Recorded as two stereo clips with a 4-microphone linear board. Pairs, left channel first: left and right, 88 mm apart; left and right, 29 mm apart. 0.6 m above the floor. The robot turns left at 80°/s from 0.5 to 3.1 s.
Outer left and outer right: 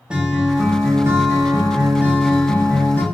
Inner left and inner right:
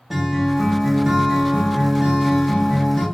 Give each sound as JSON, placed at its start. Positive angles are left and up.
{"t": 0.1, "sound": "a guitar", "azimuth_deg": -20, "distance_m": 0.5}